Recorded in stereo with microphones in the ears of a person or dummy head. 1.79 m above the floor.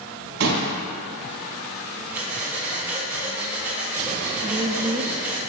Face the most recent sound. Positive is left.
turn(degrees=-20)  # may be behind; listen again after turning